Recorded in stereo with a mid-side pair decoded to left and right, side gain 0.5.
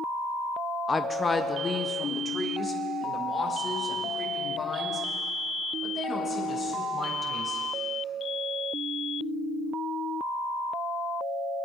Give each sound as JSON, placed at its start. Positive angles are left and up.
{"t": 0.9, "sound": "a woman speaking", "azimuth_deg": 20, "distance_m": 0.7}